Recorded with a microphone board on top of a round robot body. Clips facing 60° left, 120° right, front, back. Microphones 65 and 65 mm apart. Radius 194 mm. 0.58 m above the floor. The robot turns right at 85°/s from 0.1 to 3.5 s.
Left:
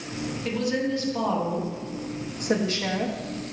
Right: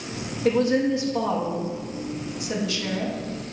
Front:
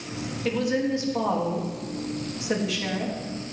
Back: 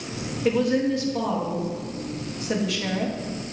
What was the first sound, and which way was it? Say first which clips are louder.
A woman speaking: right 7 dB, back 4 dB; 105° right.